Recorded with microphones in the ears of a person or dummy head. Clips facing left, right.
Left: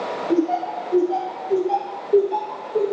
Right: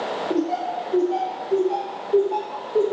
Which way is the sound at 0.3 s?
70° left (ahead or behind).